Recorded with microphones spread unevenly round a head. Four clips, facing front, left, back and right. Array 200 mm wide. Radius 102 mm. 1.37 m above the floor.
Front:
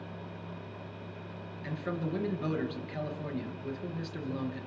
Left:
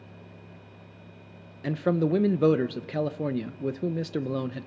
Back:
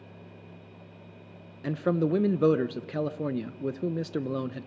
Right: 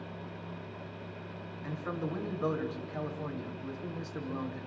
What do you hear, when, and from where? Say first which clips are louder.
1.6 s a man speaking: left 12 dB, back 9 dB; 120° left, 0.9 m